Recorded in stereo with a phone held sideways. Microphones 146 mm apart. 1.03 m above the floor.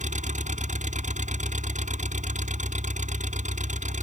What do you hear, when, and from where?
0.0 s an engine running: 60° right (ahead or behind)